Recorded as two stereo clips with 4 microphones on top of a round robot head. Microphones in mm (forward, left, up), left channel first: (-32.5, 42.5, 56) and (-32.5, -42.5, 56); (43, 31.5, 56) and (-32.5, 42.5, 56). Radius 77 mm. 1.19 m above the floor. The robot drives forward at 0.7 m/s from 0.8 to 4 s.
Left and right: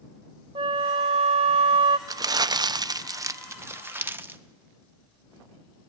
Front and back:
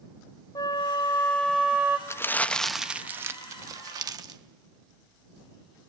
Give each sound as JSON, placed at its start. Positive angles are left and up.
{"t": 0.6, "sound": "a flute", "azimuth_deg": -55, "distance_m": 0.8}
{"t": 2.1, "sound": "crumpling", "azimuth_deg": -55, "distance_m": 0.8}